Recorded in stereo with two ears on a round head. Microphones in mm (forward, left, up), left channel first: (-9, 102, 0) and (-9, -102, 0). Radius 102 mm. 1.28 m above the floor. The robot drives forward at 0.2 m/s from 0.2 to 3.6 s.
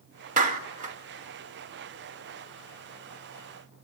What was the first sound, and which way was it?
A clap, 35° right (ahead or behind).